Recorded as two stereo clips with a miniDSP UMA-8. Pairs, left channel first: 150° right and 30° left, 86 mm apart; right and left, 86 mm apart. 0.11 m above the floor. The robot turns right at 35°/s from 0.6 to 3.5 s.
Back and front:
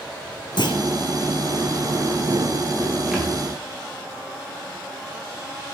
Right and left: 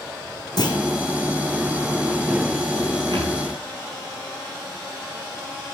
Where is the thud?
115° left, 5 m; by 3.4 s 120° left, 5 m.